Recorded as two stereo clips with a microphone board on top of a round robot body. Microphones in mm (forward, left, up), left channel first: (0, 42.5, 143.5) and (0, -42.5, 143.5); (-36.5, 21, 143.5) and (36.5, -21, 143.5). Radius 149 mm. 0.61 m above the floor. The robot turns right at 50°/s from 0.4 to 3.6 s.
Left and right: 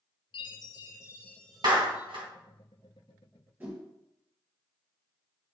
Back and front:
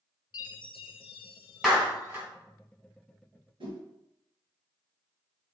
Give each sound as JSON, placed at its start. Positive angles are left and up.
{"t": 0.3, "sound": "a chime", "azimuth_deg": 120, "distance_m": 0.6}
{"t": 1.6, "sound": "a clap", "azimuth_deg": -115, "distance_m": 3.0}
{"t": 3.6, "sound": "a whoosh", "azimuth_deg": -20, "distance_m": 3.0}